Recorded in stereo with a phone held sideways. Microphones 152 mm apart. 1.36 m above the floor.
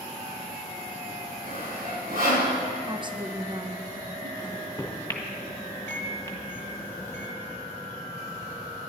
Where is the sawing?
80° right, 5 m.